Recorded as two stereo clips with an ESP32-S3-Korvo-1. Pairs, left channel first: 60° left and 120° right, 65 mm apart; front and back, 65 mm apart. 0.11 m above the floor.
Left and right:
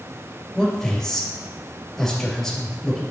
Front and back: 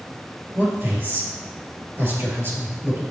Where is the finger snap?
No finger snap in this recording.